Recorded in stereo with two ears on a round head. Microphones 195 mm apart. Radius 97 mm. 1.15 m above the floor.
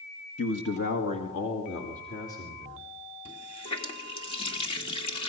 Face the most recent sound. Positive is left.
turn(degrees=25)  # may be behind; listen again after turning